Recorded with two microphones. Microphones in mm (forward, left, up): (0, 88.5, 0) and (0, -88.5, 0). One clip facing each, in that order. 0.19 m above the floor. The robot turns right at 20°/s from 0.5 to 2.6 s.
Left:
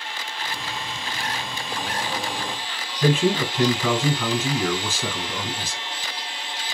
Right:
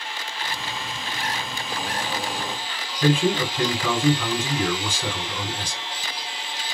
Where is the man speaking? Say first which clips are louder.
Even; 5° left (ahead or behind), 1.5 m.